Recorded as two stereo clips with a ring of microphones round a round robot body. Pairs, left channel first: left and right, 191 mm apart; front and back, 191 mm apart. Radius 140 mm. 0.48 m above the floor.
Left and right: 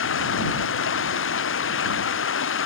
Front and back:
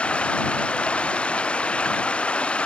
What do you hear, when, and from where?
0.0 s running water: 85° left